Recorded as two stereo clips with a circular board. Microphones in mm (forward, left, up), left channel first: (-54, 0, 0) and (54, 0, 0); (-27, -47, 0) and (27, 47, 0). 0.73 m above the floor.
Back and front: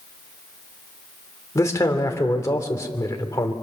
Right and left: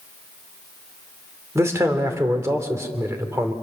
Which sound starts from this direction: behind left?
A man speaking, at 1.6 s.